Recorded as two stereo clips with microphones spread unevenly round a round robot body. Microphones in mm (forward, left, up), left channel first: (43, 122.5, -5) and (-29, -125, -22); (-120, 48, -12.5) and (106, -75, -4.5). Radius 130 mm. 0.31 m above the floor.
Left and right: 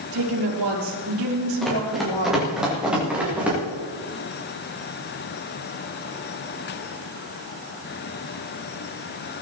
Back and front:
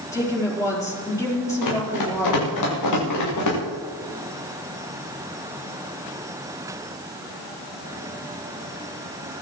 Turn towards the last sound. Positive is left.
turn(degrees=170)